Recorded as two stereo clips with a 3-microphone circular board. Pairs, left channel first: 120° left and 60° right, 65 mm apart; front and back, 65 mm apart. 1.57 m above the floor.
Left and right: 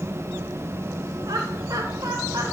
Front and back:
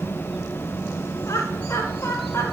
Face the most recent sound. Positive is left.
turn(degrees=-45)